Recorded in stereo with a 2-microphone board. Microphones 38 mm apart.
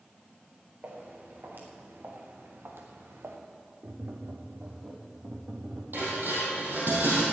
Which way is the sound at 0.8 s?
55° right (ahead or behind).